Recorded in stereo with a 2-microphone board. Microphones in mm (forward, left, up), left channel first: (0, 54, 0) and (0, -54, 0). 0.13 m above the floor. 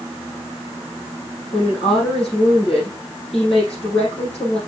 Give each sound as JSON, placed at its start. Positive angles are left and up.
{"t": 1.5, "sound": "a woman speaking", "side_deg": 70, "distance_m": 4.5}